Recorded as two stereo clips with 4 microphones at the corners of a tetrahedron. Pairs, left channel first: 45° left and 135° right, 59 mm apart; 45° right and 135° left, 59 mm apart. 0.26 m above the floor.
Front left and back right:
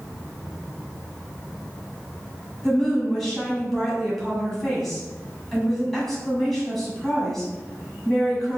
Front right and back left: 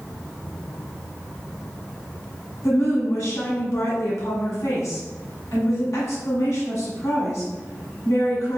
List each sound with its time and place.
2.6 s a woman speaking: 40° right, 1.7 m